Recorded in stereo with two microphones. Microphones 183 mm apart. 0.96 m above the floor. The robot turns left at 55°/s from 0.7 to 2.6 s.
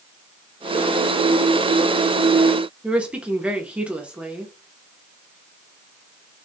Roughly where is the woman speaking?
Centre.